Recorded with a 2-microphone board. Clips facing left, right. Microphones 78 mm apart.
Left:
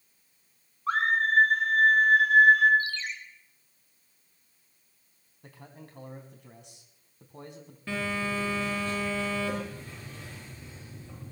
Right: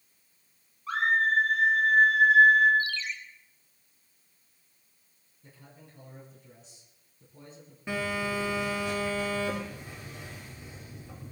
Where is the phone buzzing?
15° right (ahead or behind), 6 m.